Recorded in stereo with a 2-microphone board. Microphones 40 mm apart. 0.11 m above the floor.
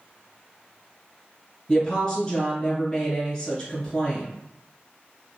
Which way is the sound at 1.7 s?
20° left (ahead or behind).